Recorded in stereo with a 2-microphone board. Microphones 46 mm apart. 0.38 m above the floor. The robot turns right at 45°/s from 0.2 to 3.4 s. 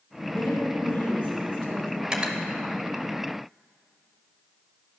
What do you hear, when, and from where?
0.3 s a woman speaking: 100° left, 1.9 m; by 1.9 s 175° left, 1.9 m
2.0 s cutlery clinking: 15° right (ahead or behind), 0.8 m; by 2.4 s 30° right (ahead or behind), 0.8 m